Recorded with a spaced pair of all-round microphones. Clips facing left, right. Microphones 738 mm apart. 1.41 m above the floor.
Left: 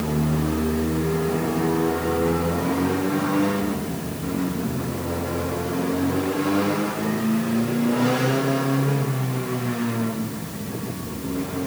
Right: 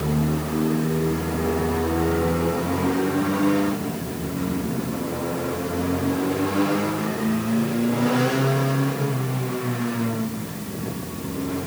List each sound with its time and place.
Only background noise.